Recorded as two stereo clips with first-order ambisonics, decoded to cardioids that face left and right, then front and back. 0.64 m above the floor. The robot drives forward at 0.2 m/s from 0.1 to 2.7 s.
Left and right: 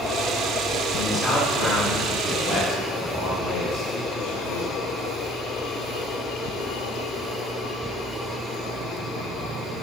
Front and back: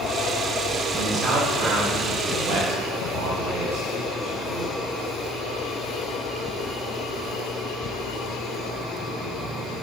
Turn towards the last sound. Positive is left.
turn(degrees=170)